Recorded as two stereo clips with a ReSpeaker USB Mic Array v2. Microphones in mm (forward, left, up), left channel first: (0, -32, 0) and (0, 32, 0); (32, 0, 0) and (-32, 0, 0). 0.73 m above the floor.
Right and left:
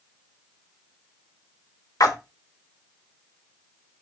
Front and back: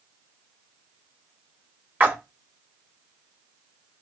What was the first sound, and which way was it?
A splash, 115° right.